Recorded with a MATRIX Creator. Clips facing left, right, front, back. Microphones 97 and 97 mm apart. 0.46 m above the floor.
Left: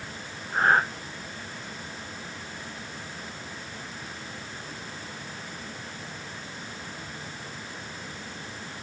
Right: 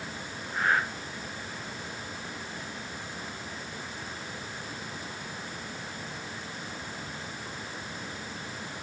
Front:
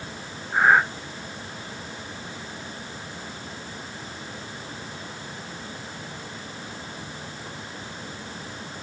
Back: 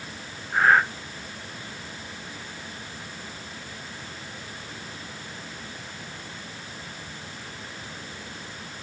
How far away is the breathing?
About 1.0 m.